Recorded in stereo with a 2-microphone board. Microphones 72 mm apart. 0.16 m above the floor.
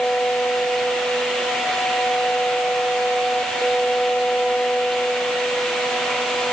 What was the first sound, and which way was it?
Only background noise.